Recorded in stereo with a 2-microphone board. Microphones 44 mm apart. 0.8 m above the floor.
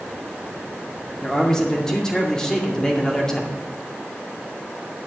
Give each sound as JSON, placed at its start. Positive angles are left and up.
{"t": 1.2, "sound": "a man speaking", "side_deg": 15, "distance_m": 2.0}